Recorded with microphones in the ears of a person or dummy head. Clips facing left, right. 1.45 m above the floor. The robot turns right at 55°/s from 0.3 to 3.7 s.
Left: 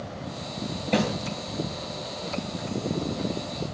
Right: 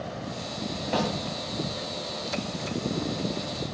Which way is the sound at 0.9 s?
30° left (ahead or behind).